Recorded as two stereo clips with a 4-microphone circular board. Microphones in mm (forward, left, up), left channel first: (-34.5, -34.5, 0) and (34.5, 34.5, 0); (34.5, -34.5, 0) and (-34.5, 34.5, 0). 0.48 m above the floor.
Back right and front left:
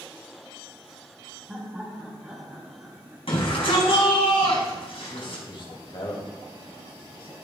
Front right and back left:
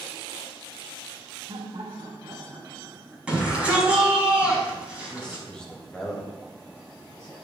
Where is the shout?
145° right, 4.5 m.